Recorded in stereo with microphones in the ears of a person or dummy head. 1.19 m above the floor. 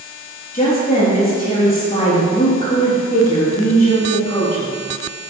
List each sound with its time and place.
0.5 s a woman speaking: 30° left (ahead or behind), 2.5 m